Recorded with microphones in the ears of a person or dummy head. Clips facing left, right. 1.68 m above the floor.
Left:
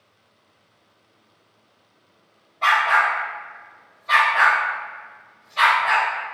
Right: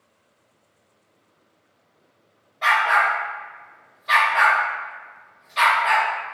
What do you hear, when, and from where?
2.6 s a dog barking: 15° right (ahead or behind), 1.7 m; by 6.1 s 65° right (ahead or behind), 2.5 m